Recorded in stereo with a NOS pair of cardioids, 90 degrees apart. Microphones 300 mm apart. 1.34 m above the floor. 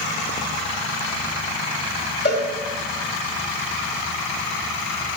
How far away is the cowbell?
About 2.5 m.